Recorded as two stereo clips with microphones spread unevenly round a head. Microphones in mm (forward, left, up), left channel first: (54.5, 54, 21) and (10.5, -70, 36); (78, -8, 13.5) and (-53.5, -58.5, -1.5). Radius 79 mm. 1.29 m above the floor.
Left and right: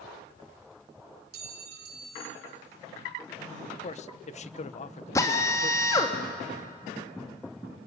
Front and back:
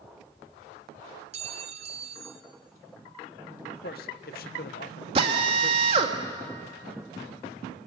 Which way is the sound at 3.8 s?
50° left.